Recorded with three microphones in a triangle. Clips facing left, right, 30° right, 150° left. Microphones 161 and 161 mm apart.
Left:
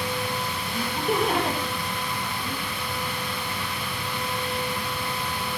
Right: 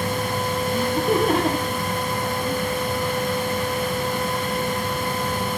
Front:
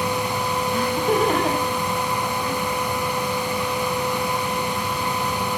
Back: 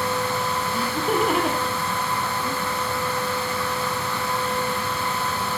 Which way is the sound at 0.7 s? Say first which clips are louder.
Right 4 dB, front 3 dB; 125° right.